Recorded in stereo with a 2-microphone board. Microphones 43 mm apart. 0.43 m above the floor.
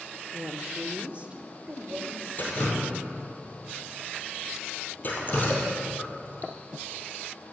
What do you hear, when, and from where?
0.3 s a woman speaking: 25° right (ahead or behind), 0.8 m
2.4 s dripping: 45° left (ahead or behind), 2.5 m